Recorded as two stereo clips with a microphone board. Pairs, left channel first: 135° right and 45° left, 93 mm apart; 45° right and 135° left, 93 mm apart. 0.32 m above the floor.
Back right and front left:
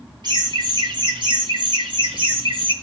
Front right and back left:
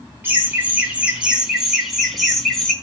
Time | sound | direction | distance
0.2 | laughter | 70° left | 3.5 m